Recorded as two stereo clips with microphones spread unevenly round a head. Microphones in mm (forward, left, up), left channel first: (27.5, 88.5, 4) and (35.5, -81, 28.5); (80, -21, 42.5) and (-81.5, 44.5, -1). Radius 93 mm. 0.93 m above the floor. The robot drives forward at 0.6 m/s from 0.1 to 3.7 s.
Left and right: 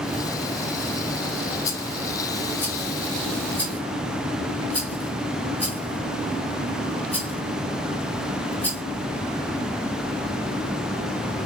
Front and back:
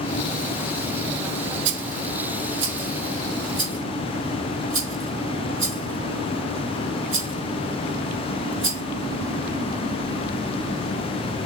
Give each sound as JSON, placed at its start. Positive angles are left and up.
{"t": 1.6, "sound": "a rattle", "azimuth_deg": 165, "distance_m": 0.7}